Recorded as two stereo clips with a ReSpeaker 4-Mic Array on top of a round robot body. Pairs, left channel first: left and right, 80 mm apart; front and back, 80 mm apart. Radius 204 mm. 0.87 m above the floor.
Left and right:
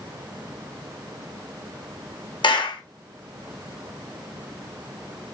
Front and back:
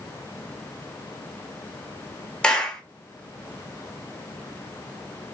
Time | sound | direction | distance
2.4 | a clap | 80° left | 1.1 m